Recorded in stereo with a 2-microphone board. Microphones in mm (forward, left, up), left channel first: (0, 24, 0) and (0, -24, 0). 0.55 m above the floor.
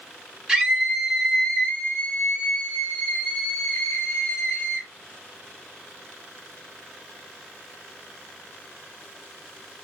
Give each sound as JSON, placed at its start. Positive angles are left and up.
{"t": 0.5, "sound": "a scream", "side_deg": -15, "distance_m": 1.4}